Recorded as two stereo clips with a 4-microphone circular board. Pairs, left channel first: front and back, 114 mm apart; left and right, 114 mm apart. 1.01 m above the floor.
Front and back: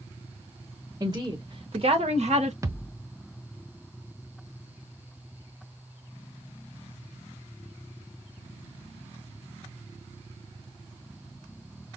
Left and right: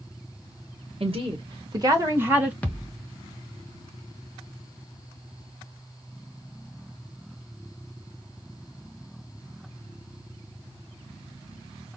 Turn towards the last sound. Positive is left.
turn(degrees=155)